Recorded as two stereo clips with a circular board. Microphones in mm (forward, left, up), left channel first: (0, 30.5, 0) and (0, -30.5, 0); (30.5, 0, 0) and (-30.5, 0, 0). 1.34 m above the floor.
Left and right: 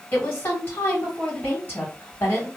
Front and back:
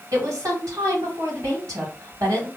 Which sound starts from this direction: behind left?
A woman speaking, at 0.1 s.